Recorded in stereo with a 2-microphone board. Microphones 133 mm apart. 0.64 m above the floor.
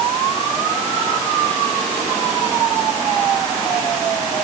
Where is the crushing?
No crushing in this recording.